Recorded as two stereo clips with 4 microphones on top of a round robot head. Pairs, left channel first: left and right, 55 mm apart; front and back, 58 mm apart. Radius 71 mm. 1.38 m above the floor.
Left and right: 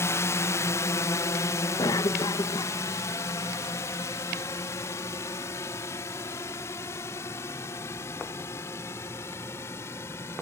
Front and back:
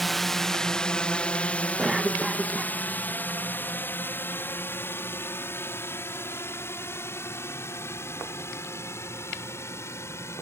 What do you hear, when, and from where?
0.0 s a drone: 90° left; by 10.4 s 40° left
1.8 s a cough: 100° left